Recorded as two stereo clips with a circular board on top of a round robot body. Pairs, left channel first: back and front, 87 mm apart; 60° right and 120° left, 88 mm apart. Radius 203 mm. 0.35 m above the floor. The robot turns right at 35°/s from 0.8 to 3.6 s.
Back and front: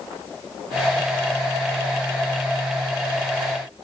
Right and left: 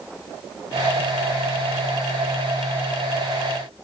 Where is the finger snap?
I don't hear a finger snap.